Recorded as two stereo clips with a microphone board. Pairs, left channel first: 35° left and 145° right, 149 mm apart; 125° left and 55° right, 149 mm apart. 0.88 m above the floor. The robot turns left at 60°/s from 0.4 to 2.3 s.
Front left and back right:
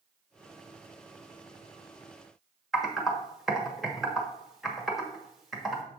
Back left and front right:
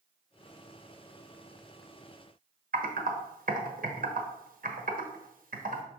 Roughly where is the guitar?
I don't hear a guitar.